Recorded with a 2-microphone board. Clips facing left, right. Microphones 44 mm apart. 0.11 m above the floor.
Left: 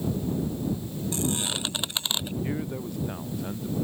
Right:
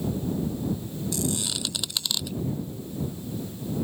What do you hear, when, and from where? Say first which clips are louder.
1.1 s a squeak: left 1 dB; 35° left (ahead or behind)
2.4 s a man speaking: left 2 dB; 65° left (ahead or behind)